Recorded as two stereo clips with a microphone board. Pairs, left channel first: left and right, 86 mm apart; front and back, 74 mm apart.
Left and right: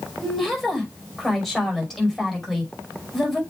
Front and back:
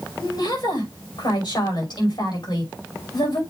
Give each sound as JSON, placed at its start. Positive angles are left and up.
{"t": 0.2, "sound": "a woman speaking", "azimuth_deg": 0, "distance_m": 5.5}